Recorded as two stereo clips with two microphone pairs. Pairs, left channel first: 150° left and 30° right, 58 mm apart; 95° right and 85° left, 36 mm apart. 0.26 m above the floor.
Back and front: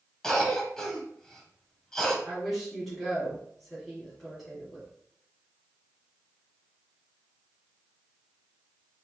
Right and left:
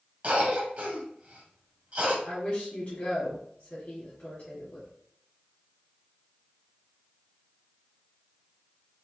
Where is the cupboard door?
I don't hear a cupboard door.